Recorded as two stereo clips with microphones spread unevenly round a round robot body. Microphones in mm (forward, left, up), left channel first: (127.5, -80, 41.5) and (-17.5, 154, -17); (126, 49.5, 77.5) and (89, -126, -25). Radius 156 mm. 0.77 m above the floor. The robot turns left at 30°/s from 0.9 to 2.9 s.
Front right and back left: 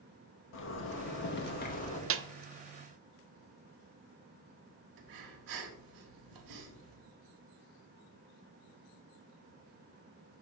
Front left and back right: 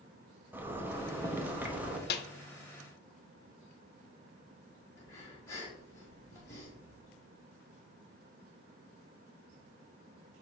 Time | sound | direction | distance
0.5 | a zipper | 95° right | 1.0 m
2.1 | a snare drum | 75° left | 0.5 m
5.0 | breathing | 150° left | 1.2 m